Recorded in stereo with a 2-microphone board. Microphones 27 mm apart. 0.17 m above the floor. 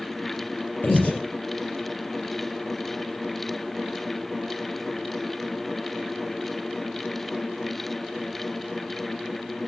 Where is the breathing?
70° left (ahead or behind), 4 m.